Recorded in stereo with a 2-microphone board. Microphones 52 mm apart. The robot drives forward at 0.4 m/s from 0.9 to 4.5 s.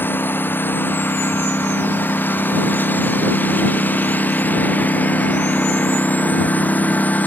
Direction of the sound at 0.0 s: 40° left (ahead or behind).